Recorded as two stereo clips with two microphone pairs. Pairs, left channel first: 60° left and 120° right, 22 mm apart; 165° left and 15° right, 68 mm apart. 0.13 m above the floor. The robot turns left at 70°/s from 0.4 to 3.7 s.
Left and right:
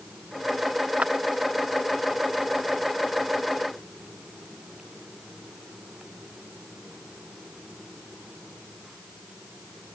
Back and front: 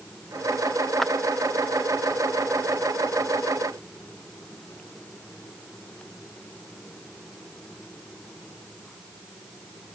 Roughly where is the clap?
Right.